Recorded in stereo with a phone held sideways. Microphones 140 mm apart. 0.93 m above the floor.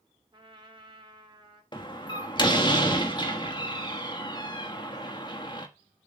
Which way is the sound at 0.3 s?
35° right (ahead or behind).